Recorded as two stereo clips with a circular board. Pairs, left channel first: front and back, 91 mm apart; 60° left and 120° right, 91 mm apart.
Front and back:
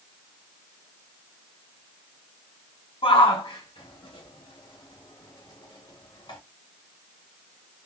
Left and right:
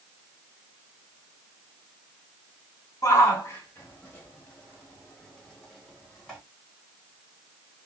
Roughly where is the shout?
Ahead.